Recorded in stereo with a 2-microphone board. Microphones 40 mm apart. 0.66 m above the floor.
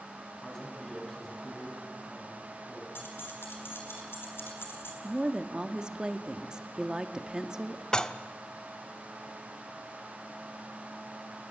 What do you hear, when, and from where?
0.4 s a man speaking: 10° left (ahead or behind), 6.5 m
3.0 s keys jangling: 80° left, 4.5 m
5.0 s a woman speaking: 20° right (ahead or behind), 1.5 m
7.9 s dishes clattering: 20° left (ahead or behind), 0.8 m